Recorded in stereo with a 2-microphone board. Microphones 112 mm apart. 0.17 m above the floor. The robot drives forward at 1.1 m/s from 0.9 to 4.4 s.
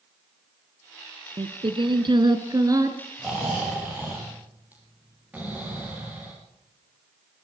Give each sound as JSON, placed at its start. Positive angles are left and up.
{"t": 1.4, "sound": "singing", "side_deg": -50, "distance_m": 1.3}
{"t": 3.2, "sound": "snoring", "side_deg": -10, "distance_m": 9.5}